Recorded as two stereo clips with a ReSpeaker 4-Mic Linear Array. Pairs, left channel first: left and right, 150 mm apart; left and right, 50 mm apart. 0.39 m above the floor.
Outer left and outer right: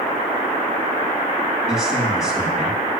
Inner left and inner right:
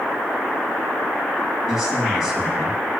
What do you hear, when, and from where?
1.7 s a man speaking: 5° right (ahead or behind), 3.5 m